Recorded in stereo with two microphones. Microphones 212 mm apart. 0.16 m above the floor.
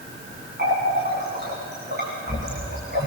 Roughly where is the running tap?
Right.